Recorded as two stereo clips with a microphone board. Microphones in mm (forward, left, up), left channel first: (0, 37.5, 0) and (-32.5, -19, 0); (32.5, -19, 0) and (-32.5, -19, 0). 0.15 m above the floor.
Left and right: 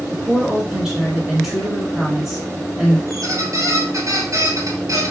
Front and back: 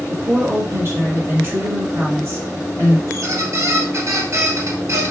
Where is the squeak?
145° right, 2.0 m.